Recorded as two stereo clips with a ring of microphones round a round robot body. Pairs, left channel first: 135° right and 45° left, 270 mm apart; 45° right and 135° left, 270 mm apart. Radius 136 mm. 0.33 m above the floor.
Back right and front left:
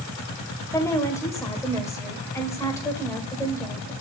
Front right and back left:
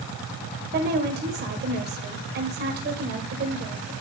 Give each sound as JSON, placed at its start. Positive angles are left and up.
{"t": 0.7, "sound": "a woman speaking", "azimuth_deg": 150, "distance_m": 1.7}